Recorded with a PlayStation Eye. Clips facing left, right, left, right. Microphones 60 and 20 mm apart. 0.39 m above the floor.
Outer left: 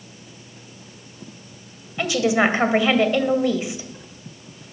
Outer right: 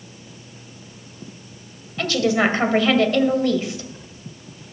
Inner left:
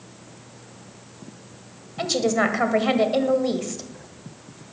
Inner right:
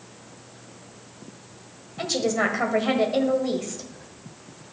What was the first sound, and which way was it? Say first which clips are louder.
A woman speaking: even, inner left 2 dB; 15° left (ahead or behind).